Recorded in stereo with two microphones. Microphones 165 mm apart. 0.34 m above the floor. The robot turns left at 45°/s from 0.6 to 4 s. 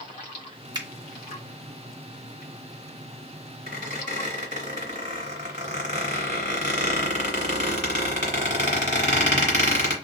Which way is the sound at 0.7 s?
25° right (ahead or behind).